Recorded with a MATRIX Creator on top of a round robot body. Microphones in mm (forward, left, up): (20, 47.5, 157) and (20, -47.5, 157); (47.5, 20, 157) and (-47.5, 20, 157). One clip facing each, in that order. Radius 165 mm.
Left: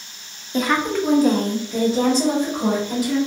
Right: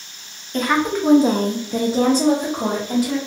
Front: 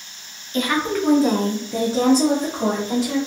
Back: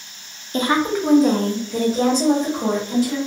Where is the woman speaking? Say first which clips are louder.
Right 1 dB, back 2 dB; 170° left, 0.7 m; by 3.2 s 40° right, 1.5 m.